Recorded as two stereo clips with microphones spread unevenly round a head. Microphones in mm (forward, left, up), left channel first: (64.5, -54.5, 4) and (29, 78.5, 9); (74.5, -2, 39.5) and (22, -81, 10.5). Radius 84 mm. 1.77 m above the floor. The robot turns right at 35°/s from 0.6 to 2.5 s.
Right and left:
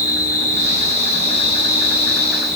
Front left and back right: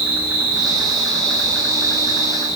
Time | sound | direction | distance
0.0 | an insect | 55° right | 1.1 m